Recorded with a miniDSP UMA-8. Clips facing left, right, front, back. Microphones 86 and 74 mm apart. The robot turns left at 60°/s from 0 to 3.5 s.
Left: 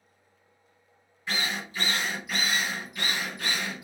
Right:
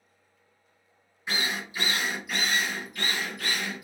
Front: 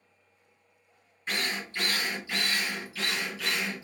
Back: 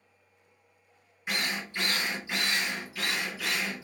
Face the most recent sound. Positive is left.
turn(degrees=105)